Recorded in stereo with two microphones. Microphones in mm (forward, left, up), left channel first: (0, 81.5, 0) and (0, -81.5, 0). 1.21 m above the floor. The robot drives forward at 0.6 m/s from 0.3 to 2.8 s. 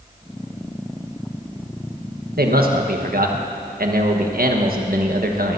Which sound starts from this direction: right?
A man speaking, at 2.4 s.